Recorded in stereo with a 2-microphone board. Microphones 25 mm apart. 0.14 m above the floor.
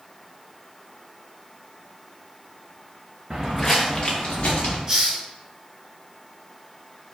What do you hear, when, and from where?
3.3 s footsteps: 10° right (ahead or behind), 0.6 m; by 4.8 s 60° left (ahead or behind), 1.2 m
4.9 s a hiss: 25° right (ahead or behind), 0.9 m